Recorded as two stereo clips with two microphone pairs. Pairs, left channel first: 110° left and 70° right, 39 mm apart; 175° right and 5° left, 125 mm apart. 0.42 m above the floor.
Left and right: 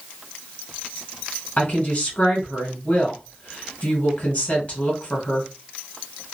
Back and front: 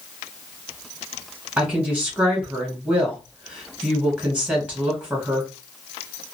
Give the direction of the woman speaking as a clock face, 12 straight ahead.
9 o'clock.